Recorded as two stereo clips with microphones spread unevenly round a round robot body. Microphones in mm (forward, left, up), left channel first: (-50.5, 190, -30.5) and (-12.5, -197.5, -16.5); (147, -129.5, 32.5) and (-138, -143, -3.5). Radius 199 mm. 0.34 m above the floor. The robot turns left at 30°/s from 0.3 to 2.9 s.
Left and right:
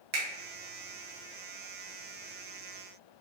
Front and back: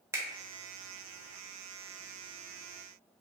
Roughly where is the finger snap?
Behind right.